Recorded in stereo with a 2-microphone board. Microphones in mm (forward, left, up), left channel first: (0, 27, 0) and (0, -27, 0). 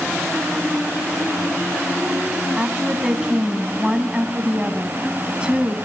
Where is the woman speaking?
20° right (ahead or behind), 2.5 m.